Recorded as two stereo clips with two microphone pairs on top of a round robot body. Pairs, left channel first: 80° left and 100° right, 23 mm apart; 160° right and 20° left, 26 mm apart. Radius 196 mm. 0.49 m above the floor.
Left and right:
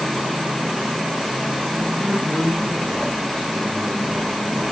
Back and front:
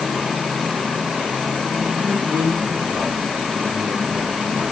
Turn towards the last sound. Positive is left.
turn(degrees=15)